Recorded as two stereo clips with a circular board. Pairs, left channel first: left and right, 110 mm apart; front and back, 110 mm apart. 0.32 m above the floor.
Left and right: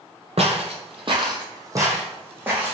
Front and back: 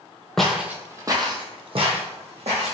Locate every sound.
0.4 s footsteps: 85° right, 0.7 m; by 2.7 s 165° right, 1.4 m